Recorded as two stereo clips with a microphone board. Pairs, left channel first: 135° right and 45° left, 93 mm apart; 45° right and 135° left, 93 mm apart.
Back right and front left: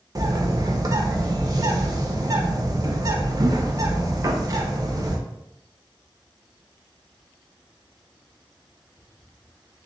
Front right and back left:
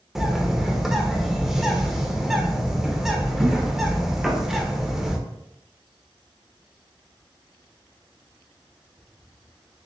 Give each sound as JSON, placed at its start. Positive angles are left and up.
{"t": 0.1, "sound": "a bird", "azimuth_deg": 50, "distance_m": 0.6}